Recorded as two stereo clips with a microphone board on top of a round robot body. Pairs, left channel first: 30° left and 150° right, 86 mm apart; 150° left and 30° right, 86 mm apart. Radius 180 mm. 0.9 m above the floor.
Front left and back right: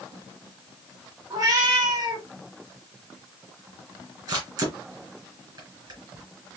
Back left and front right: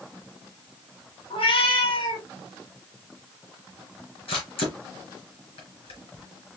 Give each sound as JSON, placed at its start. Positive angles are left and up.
{"t": 1.3, "sound": "a cat meowing", "azimuth_deg": 165, "distance_m": 1.4}
{"t": 4.3, "sound": "a camera shutter", "azimuth_deg": 165, "distance_m": 2.5}